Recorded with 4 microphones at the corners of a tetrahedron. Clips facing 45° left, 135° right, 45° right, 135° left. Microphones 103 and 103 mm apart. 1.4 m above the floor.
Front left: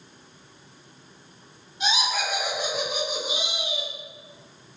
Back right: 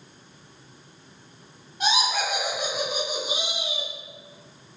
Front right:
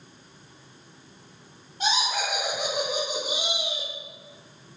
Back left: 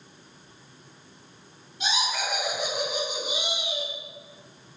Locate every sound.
1.8 s laughter: 90° right, 0.9 m; by 3.9 s 40° right, 2 m